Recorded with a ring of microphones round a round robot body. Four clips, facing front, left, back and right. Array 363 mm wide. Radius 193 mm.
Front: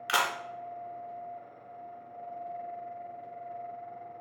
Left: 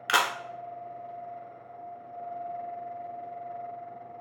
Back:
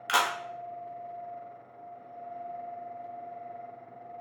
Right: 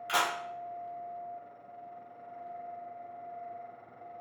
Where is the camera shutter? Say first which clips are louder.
Left 4 dB, back 2 dB; 85° left, 0.9 m.